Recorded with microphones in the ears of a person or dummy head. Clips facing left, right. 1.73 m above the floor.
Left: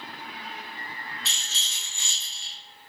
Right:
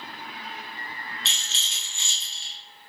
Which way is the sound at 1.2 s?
20° right (ahead or behind).